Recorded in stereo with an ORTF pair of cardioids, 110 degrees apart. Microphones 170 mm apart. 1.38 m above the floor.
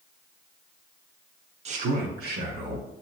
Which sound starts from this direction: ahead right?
A man speaking, at 1.6 s.